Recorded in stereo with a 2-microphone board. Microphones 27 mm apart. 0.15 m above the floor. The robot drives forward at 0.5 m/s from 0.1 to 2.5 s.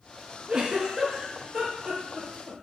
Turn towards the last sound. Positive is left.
turn(degrees=-25)  # may be behind; listen again after turning